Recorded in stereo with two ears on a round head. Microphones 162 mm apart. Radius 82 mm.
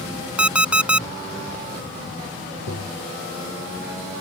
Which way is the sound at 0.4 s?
5° right (ahead or behind).